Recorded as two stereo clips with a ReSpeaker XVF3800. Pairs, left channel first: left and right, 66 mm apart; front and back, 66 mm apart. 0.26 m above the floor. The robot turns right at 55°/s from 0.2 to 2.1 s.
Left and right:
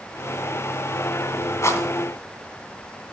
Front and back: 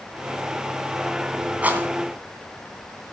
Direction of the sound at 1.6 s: 115° left.